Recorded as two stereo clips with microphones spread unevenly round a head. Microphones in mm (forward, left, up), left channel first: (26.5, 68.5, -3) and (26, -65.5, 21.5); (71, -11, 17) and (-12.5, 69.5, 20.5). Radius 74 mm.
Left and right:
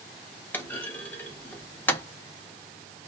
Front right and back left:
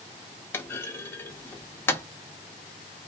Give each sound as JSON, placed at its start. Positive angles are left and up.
{"t": 0.5, "sound": "a clunk", "azimuth_deg": 10, "distance_m": 0.6}